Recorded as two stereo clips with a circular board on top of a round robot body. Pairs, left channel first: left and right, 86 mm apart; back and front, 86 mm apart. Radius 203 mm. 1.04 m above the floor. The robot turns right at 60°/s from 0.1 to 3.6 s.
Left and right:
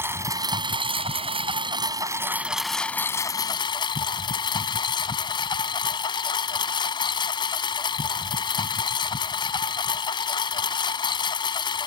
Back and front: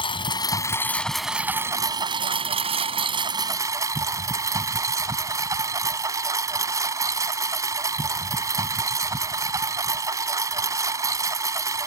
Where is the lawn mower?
155° right; by 11.9 s 55° left.